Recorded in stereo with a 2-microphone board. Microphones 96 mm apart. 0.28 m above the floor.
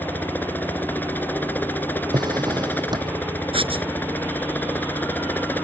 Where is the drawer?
50° right (ahead or behind).